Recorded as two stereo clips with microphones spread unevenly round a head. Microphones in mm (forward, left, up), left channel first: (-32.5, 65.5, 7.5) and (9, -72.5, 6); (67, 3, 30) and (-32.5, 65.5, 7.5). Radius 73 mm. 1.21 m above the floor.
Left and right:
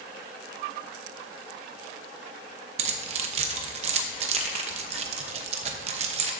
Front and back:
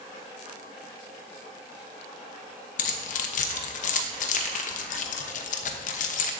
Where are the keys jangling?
25° right, 0.8 m.